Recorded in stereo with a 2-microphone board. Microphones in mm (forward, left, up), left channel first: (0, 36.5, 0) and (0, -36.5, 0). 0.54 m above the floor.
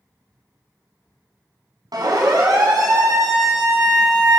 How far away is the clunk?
No clunk in this recording.